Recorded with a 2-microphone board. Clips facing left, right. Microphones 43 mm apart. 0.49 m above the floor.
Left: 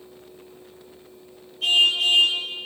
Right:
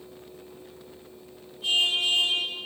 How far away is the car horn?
About 6.5 m.